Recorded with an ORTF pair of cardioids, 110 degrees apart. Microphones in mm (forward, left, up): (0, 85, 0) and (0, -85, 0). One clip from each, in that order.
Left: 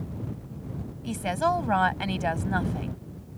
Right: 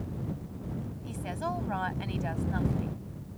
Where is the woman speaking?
55° left.